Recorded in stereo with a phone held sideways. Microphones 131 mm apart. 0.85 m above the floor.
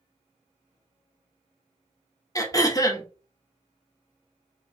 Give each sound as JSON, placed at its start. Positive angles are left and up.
{"t": 2.4, "sound": "throat clearing", "side_deg": 25, "distance_m": 0.7}